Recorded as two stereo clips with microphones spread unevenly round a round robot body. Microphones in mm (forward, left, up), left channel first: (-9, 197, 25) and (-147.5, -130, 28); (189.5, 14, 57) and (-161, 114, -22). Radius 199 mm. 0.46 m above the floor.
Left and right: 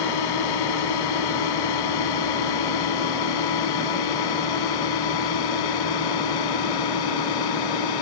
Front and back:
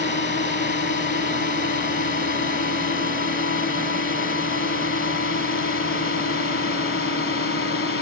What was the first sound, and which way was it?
A drone, 50° left.